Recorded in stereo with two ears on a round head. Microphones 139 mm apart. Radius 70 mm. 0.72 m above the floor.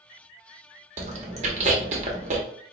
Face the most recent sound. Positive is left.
turn(degrees=-45)  # may be behind; listen again after turning